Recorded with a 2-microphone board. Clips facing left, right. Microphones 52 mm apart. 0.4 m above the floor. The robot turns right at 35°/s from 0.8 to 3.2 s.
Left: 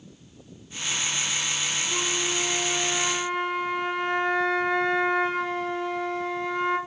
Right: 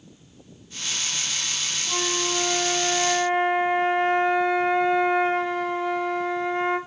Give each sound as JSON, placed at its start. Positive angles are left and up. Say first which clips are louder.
{"t": 1.9, "sound": "a flute", "louder": "right 5 dB", "azimuth_deg": -50, "distance_m": 2.0}